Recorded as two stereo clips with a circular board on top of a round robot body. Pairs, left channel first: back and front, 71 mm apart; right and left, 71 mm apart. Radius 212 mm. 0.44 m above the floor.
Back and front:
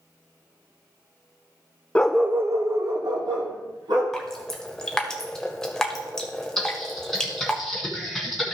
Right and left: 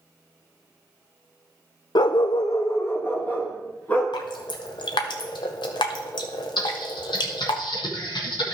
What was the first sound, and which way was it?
A dog barking, 110° right.